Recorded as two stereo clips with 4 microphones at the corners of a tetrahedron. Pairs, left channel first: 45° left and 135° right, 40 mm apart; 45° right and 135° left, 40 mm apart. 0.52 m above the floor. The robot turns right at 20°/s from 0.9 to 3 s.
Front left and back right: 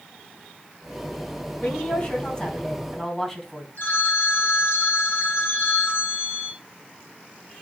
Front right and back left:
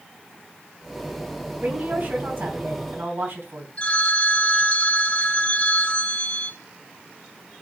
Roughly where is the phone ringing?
Ahead.